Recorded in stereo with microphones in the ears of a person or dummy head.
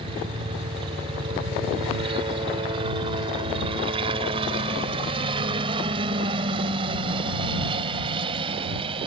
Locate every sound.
0.0 s a helicopter: 35° right (ahead or behind)